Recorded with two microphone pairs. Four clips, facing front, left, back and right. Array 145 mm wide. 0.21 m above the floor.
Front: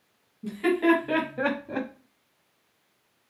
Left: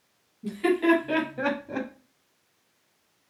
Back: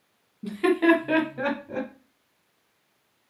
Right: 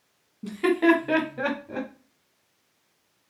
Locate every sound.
0.4 s laughter: 130° right, 1.6 m; by 1.9 s 30° left, 1.1 m